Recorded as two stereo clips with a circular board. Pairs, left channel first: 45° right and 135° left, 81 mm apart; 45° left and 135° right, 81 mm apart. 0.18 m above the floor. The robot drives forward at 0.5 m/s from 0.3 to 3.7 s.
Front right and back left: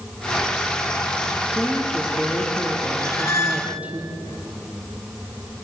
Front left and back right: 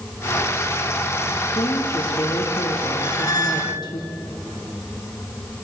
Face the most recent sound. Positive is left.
turn(degrees=10)